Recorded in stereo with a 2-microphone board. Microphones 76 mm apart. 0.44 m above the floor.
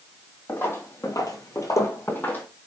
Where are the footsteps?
30° left (ahead or behind), 1.1 m; by 2.5 s 20° left (ahead or behind), 1.1 m.